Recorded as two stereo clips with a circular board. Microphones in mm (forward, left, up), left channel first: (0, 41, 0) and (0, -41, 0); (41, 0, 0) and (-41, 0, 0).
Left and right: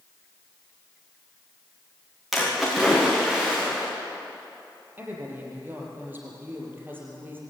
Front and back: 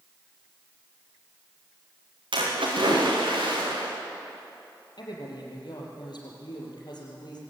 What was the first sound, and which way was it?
A splash, straight behind.